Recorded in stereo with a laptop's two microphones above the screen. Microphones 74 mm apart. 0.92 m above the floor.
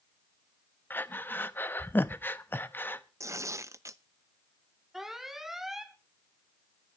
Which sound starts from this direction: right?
Tearing paper, at 3.2 s.